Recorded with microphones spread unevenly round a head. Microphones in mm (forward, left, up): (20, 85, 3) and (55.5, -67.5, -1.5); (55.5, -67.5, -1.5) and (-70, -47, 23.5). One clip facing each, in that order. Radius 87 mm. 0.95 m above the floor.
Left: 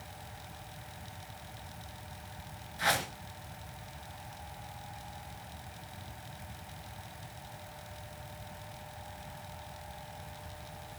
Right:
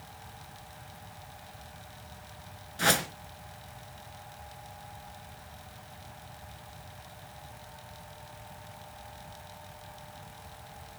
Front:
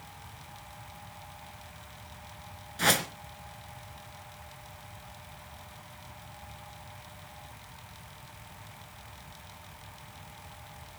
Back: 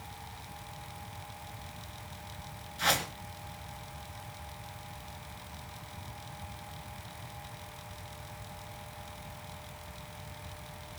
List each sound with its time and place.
2.8 s a whoosh: 45° right, 2.5 m